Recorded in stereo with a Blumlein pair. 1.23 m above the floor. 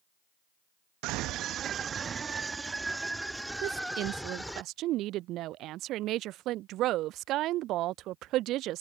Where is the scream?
40° right; by 4.6 s straight ahead.